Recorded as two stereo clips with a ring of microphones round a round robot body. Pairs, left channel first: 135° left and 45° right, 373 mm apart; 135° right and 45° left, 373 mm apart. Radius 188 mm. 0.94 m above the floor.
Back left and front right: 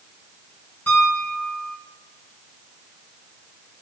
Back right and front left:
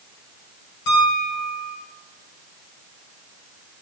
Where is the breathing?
No breathing in this recording.